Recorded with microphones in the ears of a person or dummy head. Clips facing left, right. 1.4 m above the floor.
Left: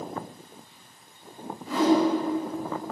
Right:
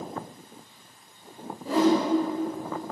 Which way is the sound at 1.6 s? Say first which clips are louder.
Even; 35° right (ahead or behind).